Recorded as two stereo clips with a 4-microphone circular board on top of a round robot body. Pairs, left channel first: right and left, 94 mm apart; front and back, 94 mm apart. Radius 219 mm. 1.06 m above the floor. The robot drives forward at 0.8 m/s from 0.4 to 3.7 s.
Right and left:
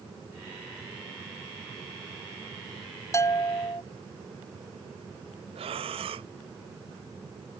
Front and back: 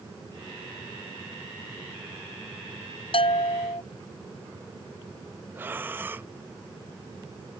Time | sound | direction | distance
3.1 | a bell | 30° right | ?
5.5 | breathing | 110° left | ?